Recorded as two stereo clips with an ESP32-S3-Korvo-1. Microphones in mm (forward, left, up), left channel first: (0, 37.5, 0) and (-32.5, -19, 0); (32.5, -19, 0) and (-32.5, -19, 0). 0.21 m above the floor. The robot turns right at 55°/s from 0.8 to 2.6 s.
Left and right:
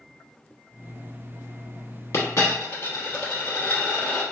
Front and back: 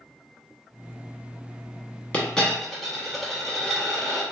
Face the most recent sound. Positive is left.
turn(degrees=85)